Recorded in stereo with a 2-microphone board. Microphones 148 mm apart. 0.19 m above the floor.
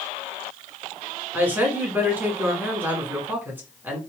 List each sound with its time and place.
1.3 s a woman speaking: 15° right (ahead or behind), 1.6 m